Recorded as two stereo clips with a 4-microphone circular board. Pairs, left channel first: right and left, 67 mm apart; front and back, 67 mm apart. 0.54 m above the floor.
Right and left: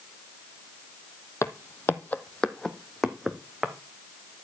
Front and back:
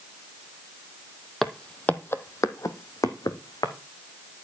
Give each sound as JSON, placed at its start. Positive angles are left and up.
{"t": 1.4, "sound": "footsteps", "azimuth_deg": -85, "distance_m": 0.7}